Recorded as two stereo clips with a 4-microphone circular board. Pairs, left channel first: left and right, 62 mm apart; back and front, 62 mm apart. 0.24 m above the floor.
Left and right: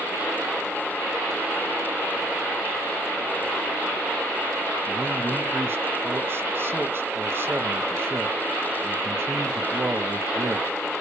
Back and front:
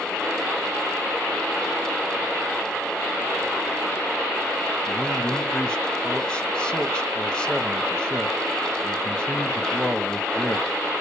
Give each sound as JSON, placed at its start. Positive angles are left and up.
{"t": 4.9, "sound": "a man speaking", "azimuth_deg": -110, "distance_m": 1.2}